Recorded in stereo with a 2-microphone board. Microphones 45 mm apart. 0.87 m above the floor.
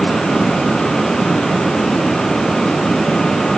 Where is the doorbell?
No doorbell in this recording.